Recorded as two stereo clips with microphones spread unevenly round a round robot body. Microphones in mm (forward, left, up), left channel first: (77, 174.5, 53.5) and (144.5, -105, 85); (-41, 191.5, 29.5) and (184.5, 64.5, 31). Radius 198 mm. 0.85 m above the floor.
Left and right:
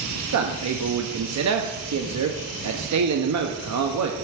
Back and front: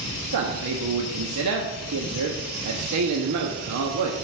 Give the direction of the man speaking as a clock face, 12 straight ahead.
2 o'clock.